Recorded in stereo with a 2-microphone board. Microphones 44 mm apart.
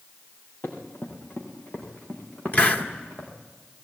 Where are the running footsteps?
50° left (ahead or behind), 5 m; by 3.3 s 25° left (ahead or behind), 6 m.